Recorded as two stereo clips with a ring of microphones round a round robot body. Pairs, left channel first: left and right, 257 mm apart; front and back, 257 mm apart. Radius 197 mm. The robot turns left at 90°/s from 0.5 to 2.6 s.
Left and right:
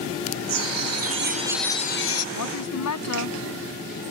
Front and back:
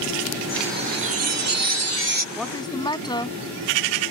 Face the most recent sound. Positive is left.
turn(degrees=75)